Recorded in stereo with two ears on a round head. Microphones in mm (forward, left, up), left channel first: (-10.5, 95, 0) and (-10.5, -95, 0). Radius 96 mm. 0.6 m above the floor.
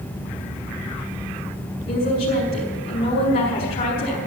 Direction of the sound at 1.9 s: 40° left (ahead or behind).